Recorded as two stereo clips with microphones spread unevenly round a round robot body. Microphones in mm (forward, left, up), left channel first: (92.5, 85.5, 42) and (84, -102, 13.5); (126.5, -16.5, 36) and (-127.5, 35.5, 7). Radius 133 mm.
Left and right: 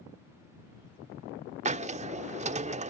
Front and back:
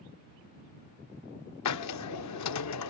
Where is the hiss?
35° right.